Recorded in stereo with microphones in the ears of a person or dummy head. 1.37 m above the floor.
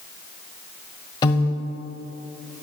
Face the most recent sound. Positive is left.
turn(degrees=25)  # may be behind; listen again after turning